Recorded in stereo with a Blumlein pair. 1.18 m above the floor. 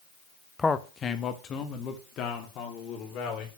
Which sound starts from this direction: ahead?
A man speaking, at 0.6 s.